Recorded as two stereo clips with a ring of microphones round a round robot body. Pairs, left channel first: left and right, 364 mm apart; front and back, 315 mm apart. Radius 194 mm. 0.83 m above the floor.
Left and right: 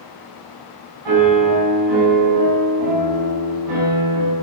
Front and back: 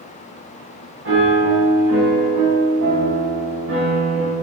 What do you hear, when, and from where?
1.1 s a piano: 120° right, 5.5 m